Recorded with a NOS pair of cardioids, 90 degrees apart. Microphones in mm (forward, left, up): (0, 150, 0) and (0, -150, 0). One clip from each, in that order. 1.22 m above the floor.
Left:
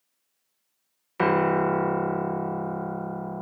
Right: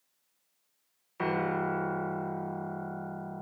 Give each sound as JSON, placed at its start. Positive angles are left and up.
{"t": 1.2, "sound": "a piano", "azimuth_deg": 45, "distance_m": 0.5}